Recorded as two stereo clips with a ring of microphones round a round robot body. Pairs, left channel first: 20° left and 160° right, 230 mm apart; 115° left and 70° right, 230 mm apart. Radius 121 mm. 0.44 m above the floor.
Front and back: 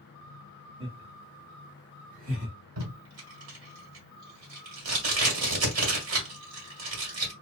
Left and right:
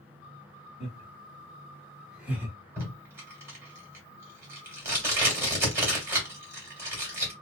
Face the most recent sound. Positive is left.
turn(degrees=-145)